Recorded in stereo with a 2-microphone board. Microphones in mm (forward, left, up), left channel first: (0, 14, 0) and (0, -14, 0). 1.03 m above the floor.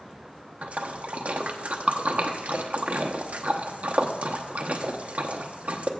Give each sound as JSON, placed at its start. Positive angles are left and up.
{"t": 0.6, "sound": "a splash", "side_deg": -65, "distance_m": 0.8}